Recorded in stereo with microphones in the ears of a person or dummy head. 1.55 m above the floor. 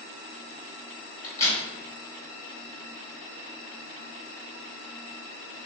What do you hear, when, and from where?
1.2 s a crack: 20° left (ahead or behind), 1.3 m